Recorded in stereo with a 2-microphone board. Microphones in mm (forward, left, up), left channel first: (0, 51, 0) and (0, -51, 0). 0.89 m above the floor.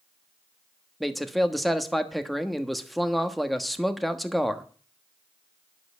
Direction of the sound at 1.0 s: Centre (ahead or behind).